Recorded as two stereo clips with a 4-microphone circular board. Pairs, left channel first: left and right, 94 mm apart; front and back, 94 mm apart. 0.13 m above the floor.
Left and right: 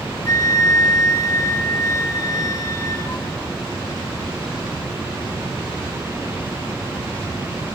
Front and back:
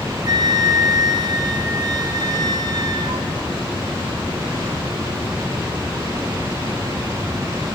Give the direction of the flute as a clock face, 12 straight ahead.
7 o'clock.